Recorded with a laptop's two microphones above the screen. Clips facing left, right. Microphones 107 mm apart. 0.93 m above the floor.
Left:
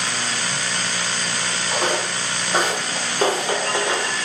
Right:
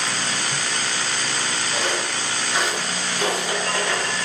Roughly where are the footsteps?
Left.